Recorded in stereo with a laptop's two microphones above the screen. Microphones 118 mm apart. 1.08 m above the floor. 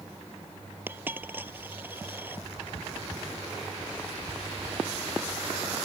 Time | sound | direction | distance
0.9 | a dropped coin | 15° right (ahead or behind) | ?